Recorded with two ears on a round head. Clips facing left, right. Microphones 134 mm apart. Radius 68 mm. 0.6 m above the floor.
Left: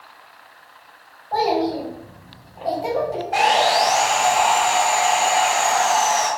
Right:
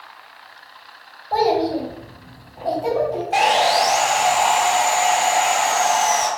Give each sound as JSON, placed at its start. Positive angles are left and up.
{"t": 1.3, "sound": "a child speaking", "side_deg": -35, "distance_m": 1.5}
{"t": 3.3, "sound": "sawing", "side_deg": -30, "distance_m": 1.4}